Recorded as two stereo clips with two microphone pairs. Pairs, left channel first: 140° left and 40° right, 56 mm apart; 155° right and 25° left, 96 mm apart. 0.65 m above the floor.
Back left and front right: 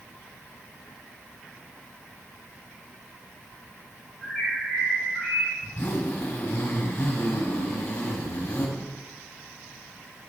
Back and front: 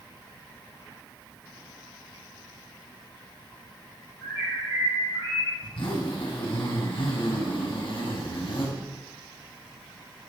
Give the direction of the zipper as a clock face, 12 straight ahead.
5 o'clock.